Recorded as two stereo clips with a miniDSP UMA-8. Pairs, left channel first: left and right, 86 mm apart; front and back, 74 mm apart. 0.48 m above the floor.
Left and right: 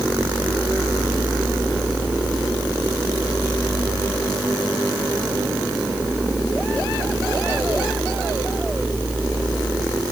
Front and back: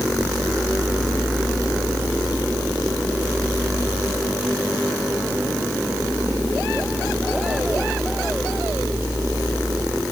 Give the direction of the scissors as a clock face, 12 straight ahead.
No scissors in this recording.